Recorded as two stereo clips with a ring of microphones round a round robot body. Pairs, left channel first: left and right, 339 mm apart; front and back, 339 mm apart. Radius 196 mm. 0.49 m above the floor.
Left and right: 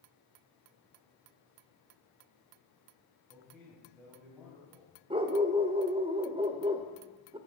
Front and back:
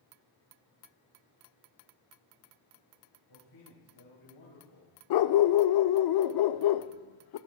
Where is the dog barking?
15° right, 0.6 m.